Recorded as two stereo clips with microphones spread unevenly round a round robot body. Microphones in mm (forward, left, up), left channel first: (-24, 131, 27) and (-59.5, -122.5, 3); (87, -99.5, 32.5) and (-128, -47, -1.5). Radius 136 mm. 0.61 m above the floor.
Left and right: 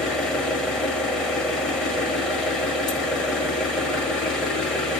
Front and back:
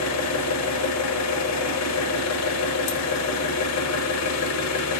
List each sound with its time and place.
0.0 s an engine running: 5° right, 1.1 m